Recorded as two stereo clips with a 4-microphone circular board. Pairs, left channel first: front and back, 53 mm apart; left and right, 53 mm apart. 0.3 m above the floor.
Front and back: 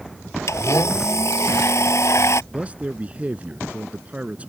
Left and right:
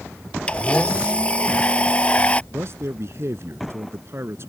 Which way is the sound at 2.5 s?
115° right.